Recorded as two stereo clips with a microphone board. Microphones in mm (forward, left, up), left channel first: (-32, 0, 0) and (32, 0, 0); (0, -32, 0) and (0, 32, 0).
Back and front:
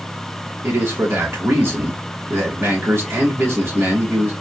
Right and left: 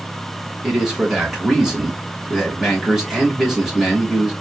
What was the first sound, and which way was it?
A man speaking, 15° left.